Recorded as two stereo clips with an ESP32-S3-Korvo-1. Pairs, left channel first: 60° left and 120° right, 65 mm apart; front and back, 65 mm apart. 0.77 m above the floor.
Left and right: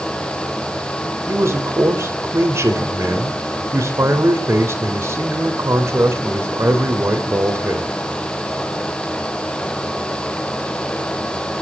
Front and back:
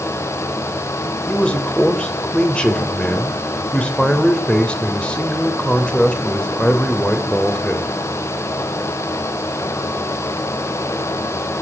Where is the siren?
I don't hear a siren.